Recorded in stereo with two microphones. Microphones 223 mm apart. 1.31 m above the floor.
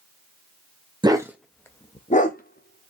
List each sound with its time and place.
1.0 s a dog barking: 20° right (ahead or behind), 0.7 m; by 2.9 s 50° left (ahead or behind), 1.1 m